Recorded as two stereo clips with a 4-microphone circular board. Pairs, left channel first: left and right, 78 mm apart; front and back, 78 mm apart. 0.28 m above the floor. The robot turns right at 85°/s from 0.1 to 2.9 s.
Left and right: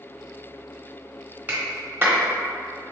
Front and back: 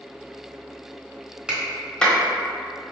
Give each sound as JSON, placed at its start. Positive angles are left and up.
{"t": 1.5, "sound": "a clap", "azimuth_deg": -115, "distance_m": 1.1}